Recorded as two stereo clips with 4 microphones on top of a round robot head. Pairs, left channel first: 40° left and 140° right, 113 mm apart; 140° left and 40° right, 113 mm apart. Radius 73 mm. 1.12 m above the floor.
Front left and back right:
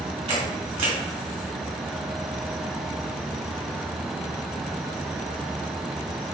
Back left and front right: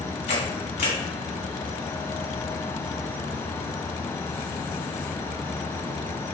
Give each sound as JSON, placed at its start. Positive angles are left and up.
{"t": 0.3, "sound": "a camera shutter", "azimuth_deg": 175, "distance_m": 2.0}